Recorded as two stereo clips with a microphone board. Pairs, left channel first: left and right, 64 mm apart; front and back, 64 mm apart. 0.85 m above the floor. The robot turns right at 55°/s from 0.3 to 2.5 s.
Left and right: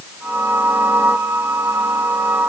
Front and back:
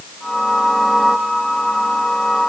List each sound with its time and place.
Only background noise.